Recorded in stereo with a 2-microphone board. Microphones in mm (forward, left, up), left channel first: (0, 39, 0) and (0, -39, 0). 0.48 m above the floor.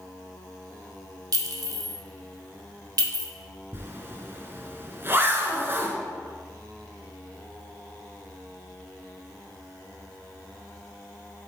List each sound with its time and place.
1.3 s a clink: 60° right (ahead or behind), 1.3 m
3.7 s a zipper: 30° right (ahead or behind), 1.2 m